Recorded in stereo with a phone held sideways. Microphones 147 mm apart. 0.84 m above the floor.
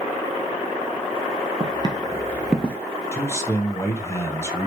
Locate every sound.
1.6 s footsteps: 35° right (ahead or behind), 1.5 m; by 2.8 s 15° left (ahead or behind), 0.8 m
3.1 s a man speaking: 20° left (ahead or behind), 1.0 m